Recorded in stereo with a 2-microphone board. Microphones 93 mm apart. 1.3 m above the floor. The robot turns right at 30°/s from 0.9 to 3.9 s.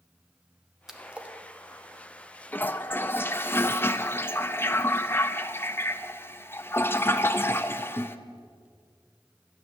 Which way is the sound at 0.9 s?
5° right (ahead or behind).